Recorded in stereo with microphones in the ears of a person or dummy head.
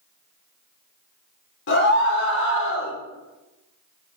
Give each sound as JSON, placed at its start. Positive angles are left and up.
{"t": 1.7, "sound": "a scream", "side_deg": 60, "distance_m": 3.5}